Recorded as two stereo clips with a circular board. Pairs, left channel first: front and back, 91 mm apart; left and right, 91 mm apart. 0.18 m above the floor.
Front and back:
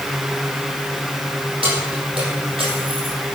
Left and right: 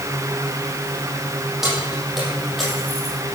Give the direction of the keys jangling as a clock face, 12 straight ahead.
6 o'clock.